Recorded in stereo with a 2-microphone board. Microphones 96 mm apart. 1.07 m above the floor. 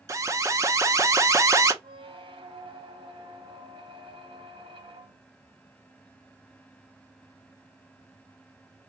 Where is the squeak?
75° right (ahead or behind), 1.0 m.